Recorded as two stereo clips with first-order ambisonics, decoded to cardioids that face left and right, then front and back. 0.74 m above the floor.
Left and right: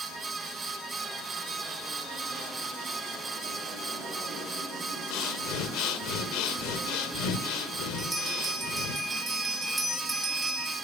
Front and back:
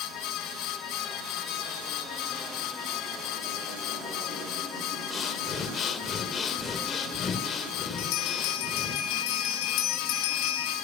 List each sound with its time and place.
5.1 s breathing: 65° left, 1.6 m
8.0 s a bell: 5° right, 5 m